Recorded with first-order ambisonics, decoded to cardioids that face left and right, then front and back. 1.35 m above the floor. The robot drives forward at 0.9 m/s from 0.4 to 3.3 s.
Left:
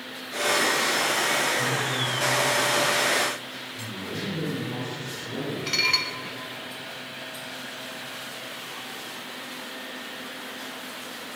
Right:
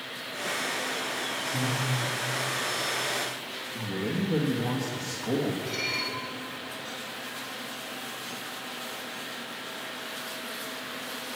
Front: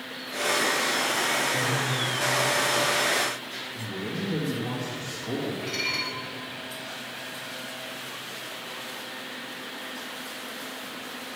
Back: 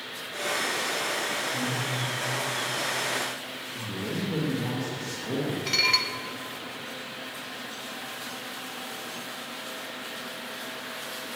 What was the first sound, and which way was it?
Breathing, 90° right.